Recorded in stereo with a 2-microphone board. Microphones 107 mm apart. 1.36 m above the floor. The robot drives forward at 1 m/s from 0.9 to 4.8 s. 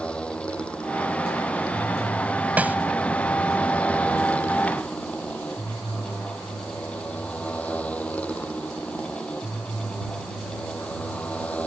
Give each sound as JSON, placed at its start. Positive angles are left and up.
{"t": 0.0, "sound": "a motorcycle", "side_deg": 10}
{"t": 2.6, "sound": "a snare drum", "side_deg": -15}